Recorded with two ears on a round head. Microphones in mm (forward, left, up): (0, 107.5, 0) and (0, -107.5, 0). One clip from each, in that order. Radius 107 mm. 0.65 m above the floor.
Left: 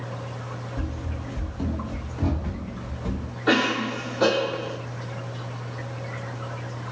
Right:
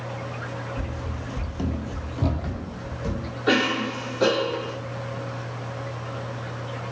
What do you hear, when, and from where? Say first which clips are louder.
0.8 s running footsteps: right 1 dB; 10° left (ahead or behind), 0.7 m; by 3.3 s 55° right (ahead or behind), 1.5 m
3.5 s a cough: even; centre (ahead or behind), 1.1 m